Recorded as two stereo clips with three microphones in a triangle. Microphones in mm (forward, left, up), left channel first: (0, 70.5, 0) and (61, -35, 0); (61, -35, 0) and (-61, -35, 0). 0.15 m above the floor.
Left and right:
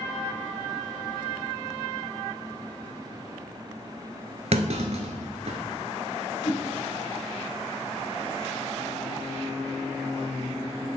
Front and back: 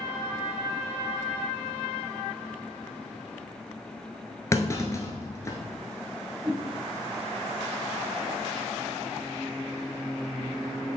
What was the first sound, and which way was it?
A clunk, 65° right.